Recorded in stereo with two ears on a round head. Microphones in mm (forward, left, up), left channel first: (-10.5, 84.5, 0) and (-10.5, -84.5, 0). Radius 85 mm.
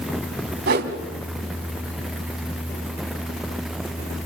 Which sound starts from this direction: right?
A whoosh, at 0.7 s.